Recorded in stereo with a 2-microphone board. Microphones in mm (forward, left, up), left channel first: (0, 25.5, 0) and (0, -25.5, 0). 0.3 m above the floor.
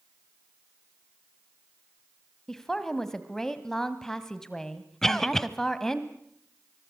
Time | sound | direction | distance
2.5 | a woman speaking | 5° left (ahead or behind) | 1.7 m
5.0 | a cough | 5° left (ahead or behind) | 1.4 m